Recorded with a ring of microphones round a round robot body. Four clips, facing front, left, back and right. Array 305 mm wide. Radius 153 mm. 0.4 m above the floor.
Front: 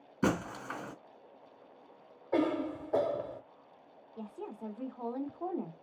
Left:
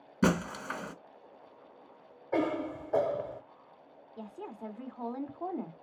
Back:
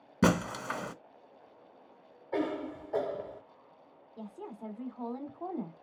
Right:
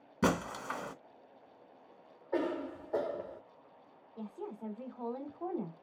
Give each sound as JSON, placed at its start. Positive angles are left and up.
{"t": 0.2, "sound": "breaking glass", "azimuth_deg": 180, "distance_m": 1.0}
{"t": 2.3, "sound": "a cough", "azimuth_deg": 55, "distance_m": 1.2}
{"t": 4.2, "sound": "a woman speaking", "azimuth_deg": 100, "distance_m": 1.1}